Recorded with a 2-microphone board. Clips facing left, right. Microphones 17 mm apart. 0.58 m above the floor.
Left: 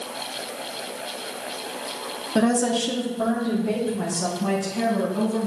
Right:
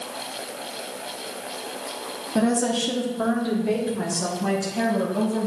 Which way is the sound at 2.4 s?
25° left (ahead or behind).